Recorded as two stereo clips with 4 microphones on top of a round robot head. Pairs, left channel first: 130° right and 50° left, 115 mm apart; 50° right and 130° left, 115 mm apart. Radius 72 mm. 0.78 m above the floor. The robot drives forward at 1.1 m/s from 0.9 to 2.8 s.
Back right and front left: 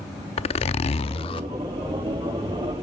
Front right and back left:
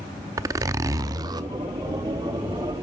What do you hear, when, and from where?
0.4 s a zipper: 165° right, 0.6 m; by 1.5 s 175° right, 1.3 m